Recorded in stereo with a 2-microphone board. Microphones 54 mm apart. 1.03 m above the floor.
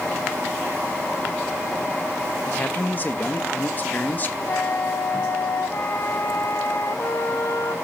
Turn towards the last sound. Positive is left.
turn(degrees=55)  # may be behind; listen again after turning